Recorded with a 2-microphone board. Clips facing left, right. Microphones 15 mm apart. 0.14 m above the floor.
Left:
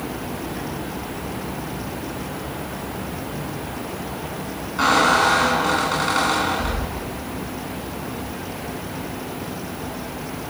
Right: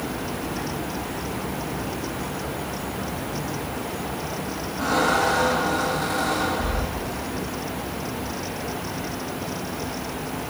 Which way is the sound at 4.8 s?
45° left (ahead or behind).